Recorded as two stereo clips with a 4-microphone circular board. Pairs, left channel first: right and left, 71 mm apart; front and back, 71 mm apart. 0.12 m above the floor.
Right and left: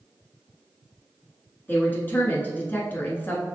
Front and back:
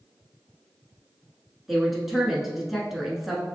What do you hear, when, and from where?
1.7 s a woman speaking: 95° right, 1.1 m